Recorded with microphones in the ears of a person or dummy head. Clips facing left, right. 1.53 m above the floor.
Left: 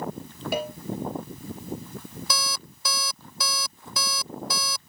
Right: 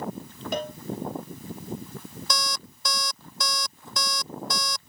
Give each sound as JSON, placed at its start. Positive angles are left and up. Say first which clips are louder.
{"t": 0.5, "sound": "a cowbell", "louder": "left 1 dB", "side_deg": 10}
{"t": 2.3, "sound": "an alarm clock", "louder": "right 1 dB", "side_deg": 10}